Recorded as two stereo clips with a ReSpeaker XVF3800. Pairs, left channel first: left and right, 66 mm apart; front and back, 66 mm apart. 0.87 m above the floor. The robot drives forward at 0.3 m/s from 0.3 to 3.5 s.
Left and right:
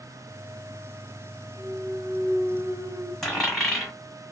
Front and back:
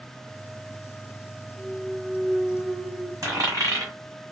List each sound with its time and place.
1.6 s a clunk: 80° right, 1.4 m; by 3.1 s 100° right, 1.4 m
3.2 s a dropped coin: 175° left, 2.0 m